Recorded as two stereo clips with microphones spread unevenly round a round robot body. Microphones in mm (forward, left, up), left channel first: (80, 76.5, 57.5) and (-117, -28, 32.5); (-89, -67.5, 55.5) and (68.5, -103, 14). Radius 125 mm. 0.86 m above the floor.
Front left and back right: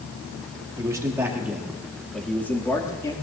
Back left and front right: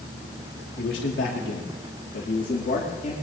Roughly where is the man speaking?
Behind left.